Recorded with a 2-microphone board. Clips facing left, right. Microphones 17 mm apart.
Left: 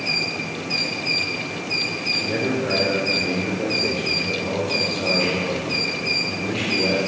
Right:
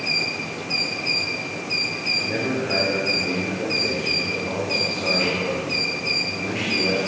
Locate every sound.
2.2 s a man speaking: 65° left (ahead or behind), 4 m